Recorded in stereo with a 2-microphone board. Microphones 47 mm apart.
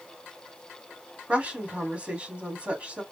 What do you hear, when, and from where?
1.3 s a woman speaking: 25° right (ahead or behind), 1.7 m